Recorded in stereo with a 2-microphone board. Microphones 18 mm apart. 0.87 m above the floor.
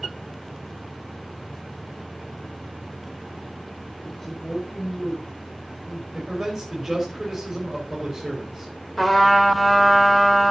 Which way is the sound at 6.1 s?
30° right (ahead or behind).